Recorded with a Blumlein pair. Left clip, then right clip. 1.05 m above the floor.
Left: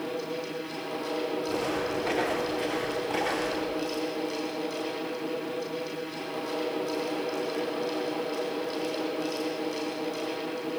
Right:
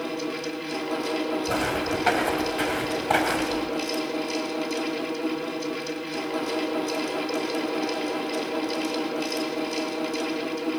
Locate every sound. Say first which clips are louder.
0.0 s a fan: right 3 dB; 70° right, 4 m
1.5 s footsteps: right 4 dB; 60° right, 4 m